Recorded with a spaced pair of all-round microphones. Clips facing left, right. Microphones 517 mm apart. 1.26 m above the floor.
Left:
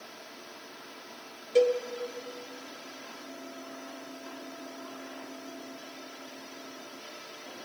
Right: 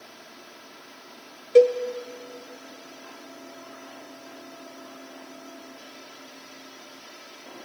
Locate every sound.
1.6 s a cowbell: 70° right (ahead or behind), 0.6 m